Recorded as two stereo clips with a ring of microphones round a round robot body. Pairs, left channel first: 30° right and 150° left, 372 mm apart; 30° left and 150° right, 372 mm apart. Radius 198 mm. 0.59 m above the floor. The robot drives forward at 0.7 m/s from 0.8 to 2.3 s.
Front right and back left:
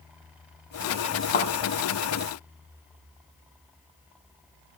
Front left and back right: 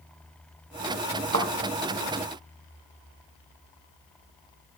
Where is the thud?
90° right, 1.7 m; by 1.5 s 95° right, 1.7 m.